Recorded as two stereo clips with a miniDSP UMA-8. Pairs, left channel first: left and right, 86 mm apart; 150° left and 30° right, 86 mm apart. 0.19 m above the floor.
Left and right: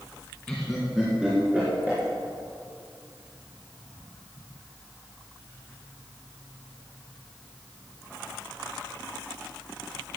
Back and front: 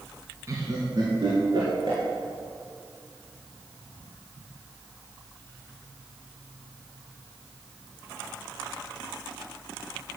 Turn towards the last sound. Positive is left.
turn(degrees=-20)